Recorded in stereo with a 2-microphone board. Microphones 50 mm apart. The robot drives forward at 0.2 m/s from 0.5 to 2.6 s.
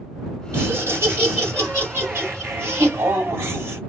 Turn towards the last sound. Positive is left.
turn(degrees=-60)  # may be behind; listen again after turning